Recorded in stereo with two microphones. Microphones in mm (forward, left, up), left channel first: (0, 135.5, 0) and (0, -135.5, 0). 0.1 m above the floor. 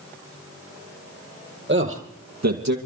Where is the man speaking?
40° right (ahead or behind), 2.5 m; by 2.8 s 70° right (ahead or behind), 3 m.